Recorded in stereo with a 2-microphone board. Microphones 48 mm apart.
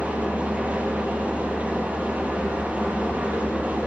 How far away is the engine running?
About 5.5 m.